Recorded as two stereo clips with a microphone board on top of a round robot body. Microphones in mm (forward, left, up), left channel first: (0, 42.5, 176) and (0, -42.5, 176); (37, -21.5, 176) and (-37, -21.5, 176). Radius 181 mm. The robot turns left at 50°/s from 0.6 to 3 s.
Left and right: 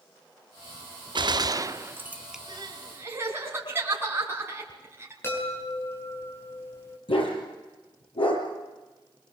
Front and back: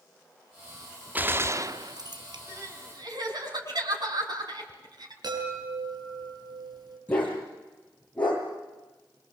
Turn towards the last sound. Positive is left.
turn(degrees=70)